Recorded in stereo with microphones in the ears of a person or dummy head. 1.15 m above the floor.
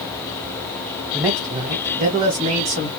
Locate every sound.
1.1 s a man speaking: 15° right (ahead or behind), 0.8 m; by 2.9 s 45° right (ahead or behind), 1.9 m